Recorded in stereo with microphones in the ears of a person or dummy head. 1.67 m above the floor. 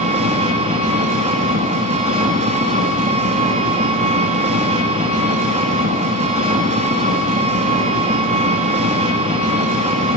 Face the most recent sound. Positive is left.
turn(degrees=-30)  # may be behind; listen again after turning